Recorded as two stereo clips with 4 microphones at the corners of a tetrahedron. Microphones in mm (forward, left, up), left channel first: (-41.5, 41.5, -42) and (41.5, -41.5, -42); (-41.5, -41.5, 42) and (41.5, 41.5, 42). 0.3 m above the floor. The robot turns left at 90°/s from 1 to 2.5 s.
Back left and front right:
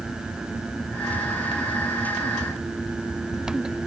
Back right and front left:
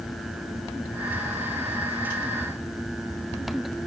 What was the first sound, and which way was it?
Only background noise.